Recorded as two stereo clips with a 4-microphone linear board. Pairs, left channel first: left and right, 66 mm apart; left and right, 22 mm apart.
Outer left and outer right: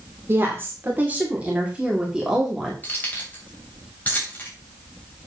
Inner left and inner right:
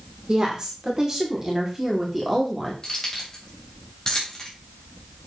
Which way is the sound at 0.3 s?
40° right (ahead or behind).